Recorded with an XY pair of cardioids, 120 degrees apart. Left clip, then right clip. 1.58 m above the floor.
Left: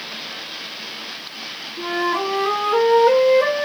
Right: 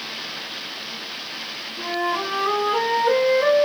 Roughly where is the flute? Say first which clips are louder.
Left 3 dB; ahead left.